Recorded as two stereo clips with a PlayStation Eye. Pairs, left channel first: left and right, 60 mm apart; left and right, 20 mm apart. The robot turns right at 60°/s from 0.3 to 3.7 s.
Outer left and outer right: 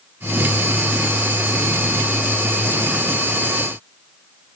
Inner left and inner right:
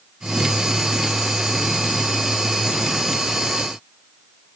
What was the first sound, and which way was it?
Only background noise.